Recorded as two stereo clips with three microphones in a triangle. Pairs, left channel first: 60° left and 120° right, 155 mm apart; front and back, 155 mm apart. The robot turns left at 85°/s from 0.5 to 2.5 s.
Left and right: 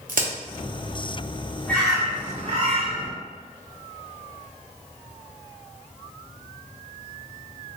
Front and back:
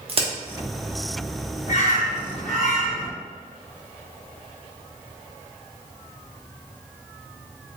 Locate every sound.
0.1 s a crack: 135° right, 0.7 m
1.7 s a bird: 15° right, 1.5 m; by 3.1 s 85° right, 1.5 m